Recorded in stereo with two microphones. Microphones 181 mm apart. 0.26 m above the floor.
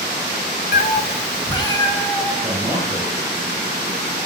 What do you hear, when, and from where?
0.7 s a cat meowing: 55° left (ahead or behind), 0.5 m; by 2.3 s 15° left (ahead or behind), 2 m
2.4 s a man speaking: 5° right (ahead or behind), 5 m